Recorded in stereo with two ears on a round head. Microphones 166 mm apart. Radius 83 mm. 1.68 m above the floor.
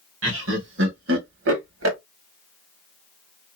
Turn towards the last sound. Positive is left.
turn(degrees=-80)